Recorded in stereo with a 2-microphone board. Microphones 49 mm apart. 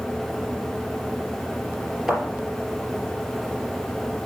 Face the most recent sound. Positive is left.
turn(degrees=-10)  # may be behind; listen again after turning